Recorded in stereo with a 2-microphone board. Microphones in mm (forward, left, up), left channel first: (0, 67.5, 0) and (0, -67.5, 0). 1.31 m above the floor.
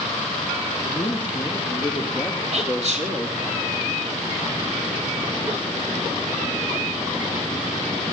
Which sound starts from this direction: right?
Whispering, at 2.5 s.